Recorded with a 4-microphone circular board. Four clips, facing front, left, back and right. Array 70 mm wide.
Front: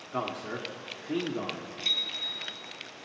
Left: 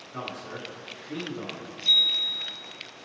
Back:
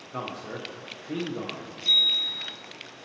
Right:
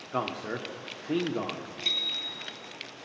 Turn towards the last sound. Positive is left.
turn(degrees=-70)